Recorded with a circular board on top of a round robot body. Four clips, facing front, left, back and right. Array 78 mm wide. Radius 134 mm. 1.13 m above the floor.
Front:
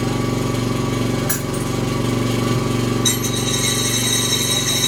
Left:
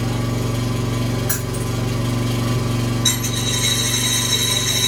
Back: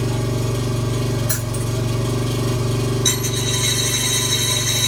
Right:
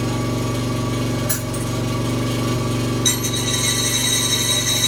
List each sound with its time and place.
0.0 s an engine running: 5° left, 0.9 m
1.3 s keys jangling: 15° left, 0.9 m
3.0 s a dropped coin: 55° left, 0.8 m